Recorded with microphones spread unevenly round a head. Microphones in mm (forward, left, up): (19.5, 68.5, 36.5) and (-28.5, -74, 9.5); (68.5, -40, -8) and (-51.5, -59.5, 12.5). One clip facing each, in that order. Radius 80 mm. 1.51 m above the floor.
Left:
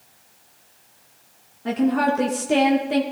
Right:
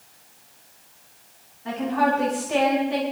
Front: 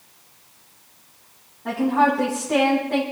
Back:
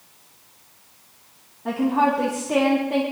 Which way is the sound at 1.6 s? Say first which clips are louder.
Left 3 dB, front 1 dB; 105° left.